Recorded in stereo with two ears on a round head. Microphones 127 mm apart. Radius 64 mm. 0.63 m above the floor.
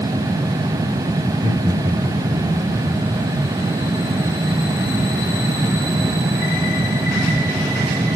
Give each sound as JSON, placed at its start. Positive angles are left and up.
{"t": 1.2, "sound": "laughter", "side_deg": -40, "distance_m": 9.5}